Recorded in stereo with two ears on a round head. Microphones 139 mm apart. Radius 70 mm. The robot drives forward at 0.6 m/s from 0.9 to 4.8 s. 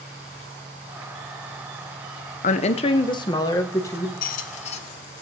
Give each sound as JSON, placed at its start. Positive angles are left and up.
{"t": 2.4, "sound": "a woman speaking", "side_deg": 50, "distance_m": 0.6}
{"t": 4.2, "sound": "a squeak", "side_deg": 60, "distance_m": 0.6}